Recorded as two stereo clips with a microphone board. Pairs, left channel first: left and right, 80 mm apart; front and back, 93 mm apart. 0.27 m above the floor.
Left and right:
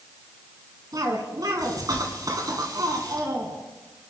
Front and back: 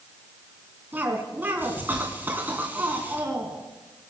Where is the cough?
115° right, 3 m.